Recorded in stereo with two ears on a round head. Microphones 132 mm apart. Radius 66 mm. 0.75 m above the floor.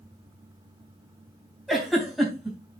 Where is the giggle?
Centre (ahead or behind), 3 m.